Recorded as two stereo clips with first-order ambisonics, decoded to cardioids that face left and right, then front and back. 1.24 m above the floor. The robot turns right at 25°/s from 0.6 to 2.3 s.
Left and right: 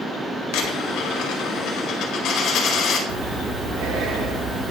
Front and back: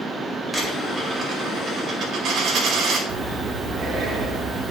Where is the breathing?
120° right, 1.0 m.